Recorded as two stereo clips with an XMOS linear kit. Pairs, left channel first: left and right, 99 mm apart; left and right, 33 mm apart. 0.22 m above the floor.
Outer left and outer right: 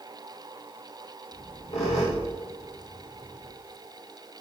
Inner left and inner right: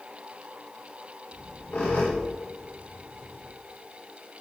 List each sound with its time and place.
1.3 s a squeak: 85° left, 6.5 m